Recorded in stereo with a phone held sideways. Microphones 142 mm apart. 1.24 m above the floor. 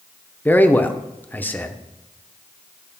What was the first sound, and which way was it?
A man speaking, 10° left (ahead or behind).